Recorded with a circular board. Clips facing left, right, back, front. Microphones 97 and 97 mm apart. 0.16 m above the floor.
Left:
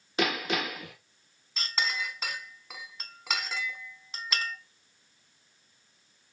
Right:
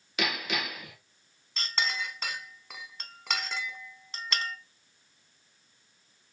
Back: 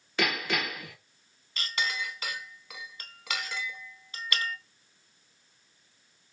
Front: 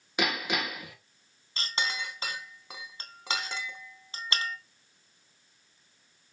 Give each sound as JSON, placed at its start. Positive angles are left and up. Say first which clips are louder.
{"t": 0.2, "sound": "hammering", "louder": "left 4 dB, even", "azimuth_deg": 65, "distance_m": 1.2}
{"t": 1.6, "sound": "a clink", "louder": "even, even", "azimuth_deg": 5, "distance_m": 0.7}